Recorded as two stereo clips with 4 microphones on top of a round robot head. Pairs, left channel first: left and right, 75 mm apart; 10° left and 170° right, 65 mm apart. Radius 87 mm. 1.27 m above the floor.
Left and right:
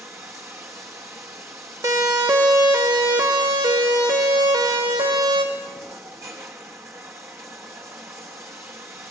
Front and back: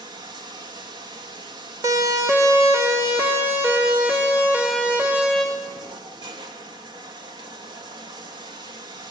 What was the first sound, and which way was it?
Running water, 150° right.